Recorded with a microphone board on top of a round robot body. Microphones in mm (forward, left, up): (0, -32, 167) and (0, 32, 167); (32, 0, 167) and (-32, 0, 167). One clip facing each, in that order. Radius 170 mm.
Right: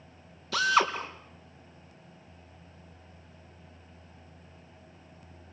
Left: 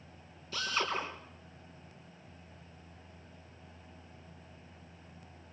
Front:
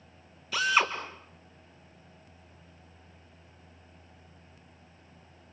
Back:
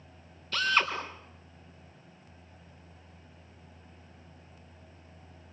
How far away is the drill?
About 4.5 m.